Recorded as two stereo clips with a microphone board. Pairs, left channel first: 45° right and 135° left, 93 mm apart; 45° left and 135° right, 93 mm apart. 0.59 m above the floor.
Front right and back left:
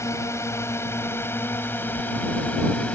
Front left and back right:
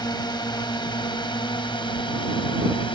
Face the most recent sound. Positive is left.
turn(degrees=30)